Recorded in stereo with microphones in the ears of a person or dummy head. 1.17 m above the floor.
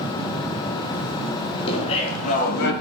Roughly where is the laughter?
Left.